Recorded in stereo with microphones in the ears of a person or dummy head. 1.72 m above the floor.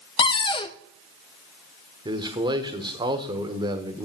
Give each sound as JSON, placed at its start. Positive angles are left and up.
{"t": 0.2, "sound": "a cupboard door", "side_deg": 25, "distance_m": 0.5}
{"t": 2.0, "sound": "a man speaking", "side_deg": -30, "distance_m": 1.1}